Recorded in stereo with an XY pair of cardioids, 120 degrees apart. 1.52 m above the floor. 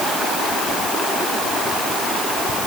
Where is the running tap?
No running tap in this recording.